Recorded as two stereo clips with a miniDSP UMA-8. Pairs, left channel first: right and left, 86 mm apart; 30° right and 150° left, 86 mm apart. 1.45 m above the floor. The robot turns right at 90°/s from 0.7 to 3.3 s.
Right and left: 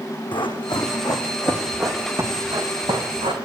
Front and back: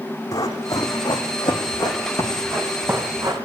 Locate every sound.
0.3 s running footsteps: 75° right, 4.5 m; by 3.4 s 110° left, 5 m